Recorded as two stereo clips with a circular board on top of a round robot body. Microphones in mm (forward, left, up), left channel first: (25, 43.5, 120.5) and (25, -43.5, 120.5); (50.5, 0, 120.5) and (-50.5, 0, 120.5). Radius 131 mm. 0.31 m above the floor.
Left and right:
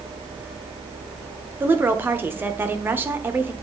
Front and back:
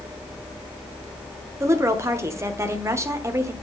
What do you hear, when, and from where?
1.6 s a woman speaking: 140° right, 1.4 m